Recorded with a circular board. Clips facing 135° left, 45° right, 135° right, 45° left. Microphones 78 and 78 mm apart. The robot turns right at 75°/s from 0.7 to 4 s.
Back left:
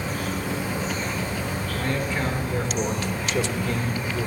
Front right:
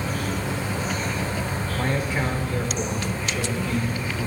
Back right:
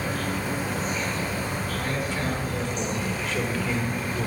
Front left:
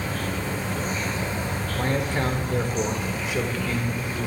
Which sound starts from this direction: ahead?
A man speaking, at 1.8 s.